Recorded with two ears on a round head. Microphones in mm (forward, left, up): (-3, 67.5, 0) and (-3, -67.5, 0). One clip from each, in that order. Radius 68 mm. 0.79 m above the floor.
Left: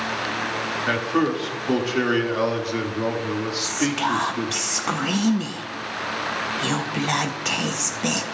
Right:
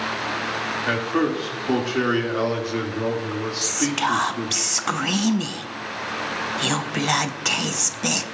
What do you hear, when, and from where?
0.9 s a man speaking: 5° left (ahead or behind), 1.7 m
3.6 s whispering: 25° right (ahead or behind), 0.5 m